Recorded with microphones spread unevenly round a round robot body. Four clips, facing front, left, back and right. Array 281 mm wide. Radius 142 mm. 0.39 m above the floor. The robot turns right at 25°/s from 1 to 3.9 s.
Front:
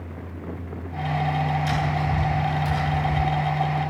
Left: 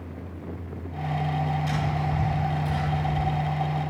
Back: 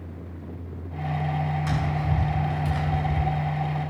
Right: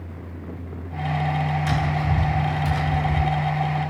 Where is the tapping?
120° right, 5 m; by 3.3 s 80° right, 5 m.